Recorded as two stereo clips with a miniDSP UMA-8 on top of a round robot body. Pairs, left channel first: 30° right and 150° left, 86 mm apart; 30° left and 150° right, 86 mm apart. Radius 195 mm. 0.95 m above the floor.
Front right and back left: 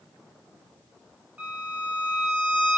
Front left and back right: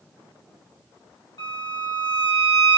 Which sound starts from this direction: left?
A violin, at 1.4 s.